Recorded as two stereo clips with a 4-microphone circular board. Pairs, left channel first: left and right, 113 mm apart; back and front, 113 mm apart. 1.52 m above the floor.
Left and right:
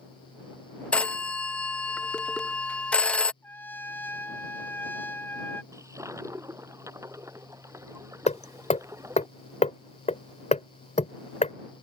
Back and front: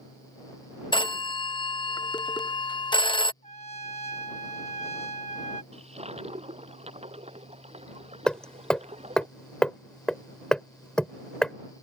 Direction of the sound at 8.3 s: 95° left.